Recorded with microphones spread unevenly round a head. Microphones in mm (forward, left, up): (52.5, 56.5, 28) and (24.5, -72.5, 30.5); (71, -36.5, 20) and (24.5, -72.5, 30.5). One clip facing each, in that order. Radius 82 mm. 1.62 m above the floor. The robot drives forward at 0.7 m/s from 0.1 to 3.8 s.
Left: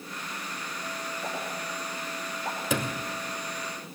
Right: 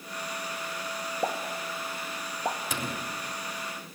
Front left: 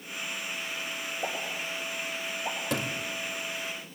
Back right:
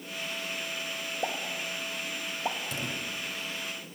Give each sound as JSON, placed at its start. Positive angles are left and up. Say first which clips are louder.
{"t": 1.2, "sound": "a pop", "louder": "right 6 dB, back right 1 dB", "azimuth_deg": -65, "distance_m": 3.0}
{"t": 2.7, "sound": "a sliding door", "louder": "left 4 dB, front left 3 dB", "azimuth_deg": 95, "distance_m": 2.0}